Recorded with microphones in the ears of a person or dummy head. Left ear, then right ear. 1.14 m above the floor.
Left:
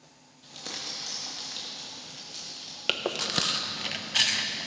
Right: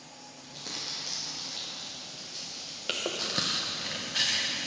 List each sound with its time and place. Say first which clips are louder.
0.4 s crumpling: left 1 dB; 25° left (ahead or behind), 2 m
2.9 s chewing: left 3 dB; 25° left (ahead or behind), 0.7 m